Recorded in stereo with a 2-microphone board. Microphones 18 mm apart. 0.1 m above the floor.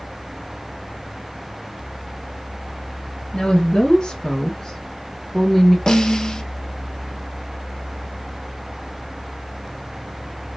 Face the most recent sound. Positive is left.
turn(degrees=40)  # may be behind; listen again after turning